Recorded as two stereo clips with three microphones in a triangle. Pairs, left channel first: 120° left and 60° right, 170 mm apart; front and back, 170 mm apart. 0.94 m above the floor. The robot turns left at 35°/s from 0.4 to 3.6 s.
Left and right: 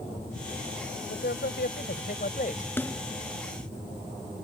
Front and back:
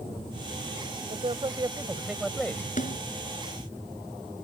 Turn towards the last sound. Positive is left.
turn(degrees=15)